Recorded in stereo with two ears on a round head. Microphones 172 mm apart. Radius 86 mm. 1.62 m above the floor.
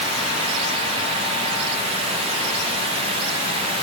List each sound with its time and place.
Only background noise.